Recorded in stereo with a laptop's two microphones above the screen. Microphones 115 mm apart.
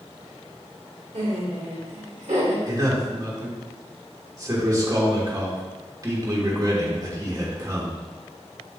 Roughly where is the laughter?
Right.